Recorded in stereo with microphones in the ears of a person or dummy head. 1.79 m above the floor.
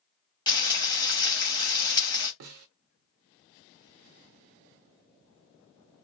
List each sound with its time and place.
0.5 s frying: 20° left (ahead or behind), 1.1 m
2.4 s a snare drum: 60° right (ahead or behind), 0.5 m